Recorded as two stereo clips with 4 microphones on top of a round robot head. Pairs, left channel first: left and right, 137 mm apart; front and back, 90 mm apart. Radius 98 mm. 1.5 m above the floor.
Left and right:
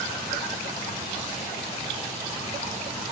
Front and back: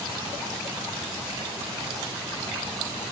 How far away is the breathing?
I don't hear breathing.